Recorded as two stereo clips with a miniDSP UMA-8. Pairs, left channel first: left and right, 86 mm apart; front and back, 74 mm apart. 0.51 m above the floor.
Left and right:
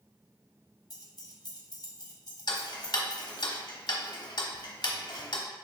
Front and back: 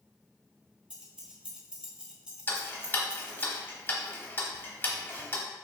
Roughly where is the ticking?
Ahead left.